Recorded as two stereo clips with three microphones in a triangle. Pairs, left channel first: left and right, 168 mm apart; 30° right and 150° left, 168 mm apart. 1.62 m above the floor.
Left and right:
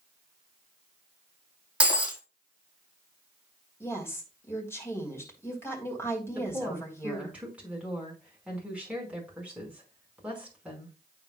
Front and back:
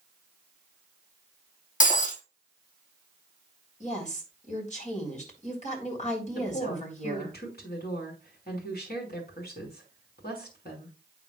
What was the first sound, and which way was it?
Breaking glass, 10° right.